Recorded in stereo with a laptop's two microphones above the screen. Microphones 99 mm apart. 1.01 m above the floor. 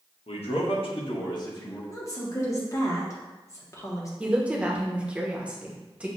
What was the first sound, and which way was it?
A man speaking, 80° left.